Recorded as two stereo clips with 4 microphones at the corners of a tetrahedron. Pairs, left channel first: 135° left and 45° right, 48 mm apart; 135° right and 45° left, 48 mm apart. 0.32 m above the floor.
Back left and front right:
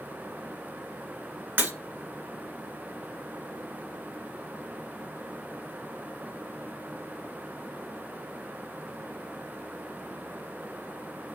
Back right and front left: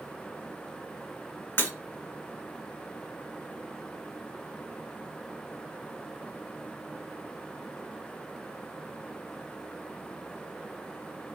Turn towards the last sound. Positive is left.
turn(degrees=-90)